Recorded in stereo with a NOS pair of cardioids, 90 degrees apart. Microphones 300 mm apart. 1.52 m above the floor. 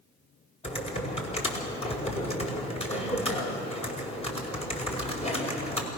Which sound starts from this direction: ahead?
Typing on a keyboard, at 0.6 s.